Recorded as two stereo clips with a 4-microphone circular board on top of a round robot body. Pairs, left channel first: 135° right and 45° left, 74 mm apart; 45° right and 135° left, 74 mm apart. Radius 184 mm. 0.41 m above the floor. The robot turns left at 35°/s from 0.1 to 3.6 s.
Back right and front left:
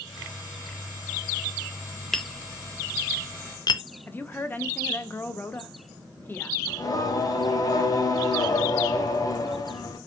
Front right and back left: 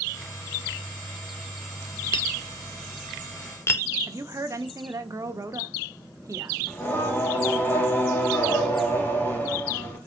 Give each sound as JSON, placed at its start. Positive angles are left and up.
{"t": 2.1, "sound": "tapping", "azimuth_deg": -50, "distance_m": 0.7}
{"t": 4.1, "sound": "a woman speaking", "azimuth_deg": 165, "distance_m": 1.2}
{"t": 6.7, "sound": "singing", "azimuth_deg": -110, "distance_m": 2.5}